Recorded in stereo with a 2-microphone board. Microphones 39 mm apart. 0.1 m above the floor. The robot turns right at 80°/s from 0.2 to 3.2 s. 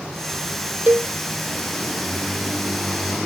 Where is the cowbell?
55° right (ahead or behind), 0.5 m; by 1.1 s 40° right (ahead or behind), 0.5 m.